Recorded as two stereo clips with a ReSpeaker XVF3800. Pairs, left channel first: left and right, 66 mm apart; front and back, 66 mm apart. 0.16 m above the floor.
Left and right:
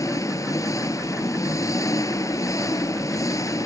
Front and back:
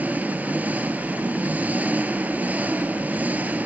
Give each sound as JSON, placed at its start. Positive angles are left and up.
{"t": 0.0, "sound": "an engine running", "azimuth_deg": 115, "distance_m": 1.5}